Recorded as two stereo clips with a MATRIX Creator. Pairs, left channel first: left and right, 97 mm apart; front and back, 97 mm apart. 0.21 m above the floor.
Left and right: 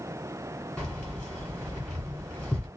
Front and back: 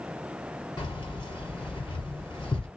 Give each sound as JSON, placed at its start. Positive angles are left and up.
{"t": 0.8, "sound": "keys jangling", "azimuth_deg": 15, "distance_m": 1.4}